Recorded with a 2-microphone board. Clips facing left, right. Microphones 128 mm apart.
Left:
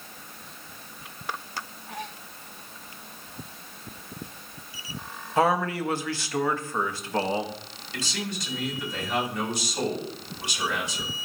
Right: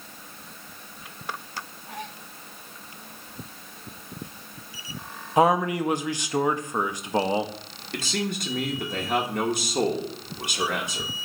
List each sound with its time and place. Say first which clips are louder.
5.4 s a man speaking: right 3 dB; 15° right (ahead or behind), 0.6 m
7.9 s a man speaking: right 4 dB; 55° right (ahead or behind), 1.6 m